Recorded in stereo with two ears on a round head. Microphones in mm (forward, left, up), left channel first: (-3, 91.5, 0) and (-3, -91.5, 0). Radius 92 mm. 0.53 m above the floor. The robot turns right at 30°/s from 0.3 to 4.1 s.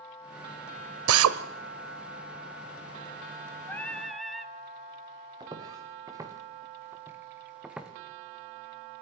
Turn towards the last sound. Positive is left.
turn(degrees=-5)  # may be behind; listen again after turning